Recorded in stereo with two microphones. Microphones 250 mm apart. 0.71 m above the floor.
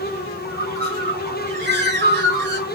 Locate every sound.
0.4 s a bird: 45° right (ahead or behind), 4 m